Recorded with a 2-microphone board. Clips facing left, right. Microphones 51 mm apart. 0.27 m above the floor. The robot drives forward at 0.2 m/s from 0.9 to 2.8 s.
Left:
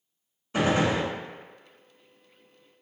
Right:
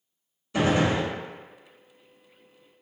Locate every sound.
0.5 s a gunshot: 35° left (ahead or behind), 0.9 m